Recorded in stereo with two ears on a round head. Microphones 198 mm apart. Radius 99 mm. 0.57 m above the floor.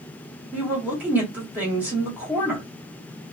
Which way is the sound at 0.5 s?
10° right (ahead or behind).